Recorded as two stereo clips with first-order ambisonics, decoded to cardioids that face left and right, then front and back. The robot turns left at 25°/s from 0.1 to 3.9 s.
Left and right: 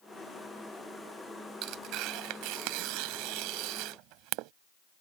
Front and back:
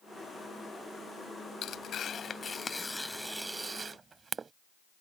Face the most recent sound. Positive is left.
turn(degrees=-110)